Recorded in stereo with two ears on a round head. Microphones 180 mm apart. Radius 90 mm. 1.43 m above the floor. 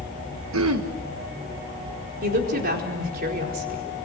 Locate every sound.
0.5 s throat clearing: 75° right (ahead or behind), 1.5 m
2.2 s a woman speaking: 50° right (ahead or behind), 4.5 m